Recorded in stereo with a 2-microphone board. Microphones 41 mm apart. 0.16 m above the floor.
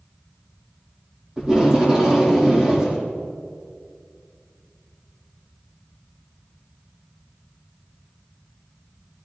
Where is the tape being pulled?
20° right (ahead or behind), 5.5 m.